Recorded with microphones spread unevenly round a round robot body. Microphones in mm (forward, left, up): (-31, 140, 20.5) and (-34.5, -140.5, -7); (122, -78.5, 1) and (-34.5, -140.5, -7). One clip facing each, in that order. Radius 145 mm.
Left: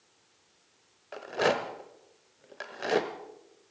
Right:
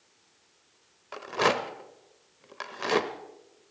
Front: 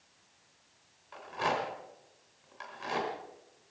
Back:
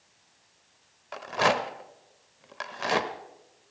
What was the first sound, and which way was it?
A rattle, 170° right.